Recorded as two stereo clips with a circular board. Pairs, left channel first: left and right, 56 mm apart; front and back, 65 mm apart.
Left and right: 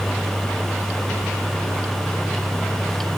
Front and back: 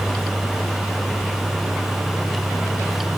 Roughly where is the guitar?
I don't hear a guitar.